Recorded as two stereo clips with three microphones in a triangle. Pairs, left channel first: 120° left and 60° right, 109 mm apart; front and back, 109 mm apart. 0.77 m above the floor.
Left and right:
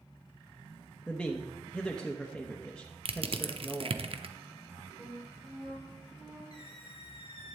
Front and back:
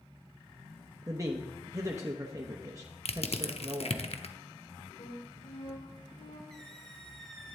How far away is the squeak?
About 1.5 m.